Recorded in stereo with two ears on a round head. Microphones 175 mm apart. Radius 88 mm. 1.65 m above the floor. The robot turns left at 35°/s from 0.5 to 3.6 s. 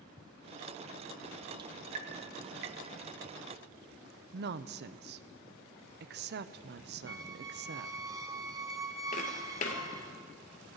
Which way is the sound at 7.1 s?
15° right (ahead or behind).